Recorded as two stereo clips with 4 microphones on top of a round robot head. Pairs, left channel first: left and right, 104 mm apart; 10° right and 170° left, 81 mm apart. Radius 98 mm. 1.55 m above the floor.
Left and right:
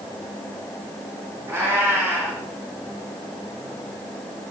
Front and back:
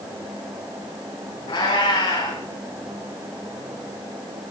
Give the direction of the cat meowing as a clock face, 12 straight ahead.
1 o'clock.